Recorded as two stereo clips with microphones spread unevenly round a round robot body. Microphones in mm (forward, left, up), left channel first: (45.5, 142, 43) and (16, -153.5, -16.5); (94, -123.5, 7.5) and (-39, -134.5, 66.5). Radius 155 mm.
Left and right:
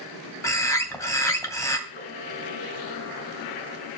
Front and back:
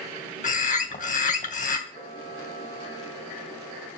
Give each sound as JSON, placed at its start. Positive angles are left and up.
{"t": 0.4, "sound": "a bird", "azimuth_deg": 0, "distance_m": 2.5}
{"t": 1.9, "sound": "a camera shutter", "azimuth_deg": 145, "distance_m": 5.0}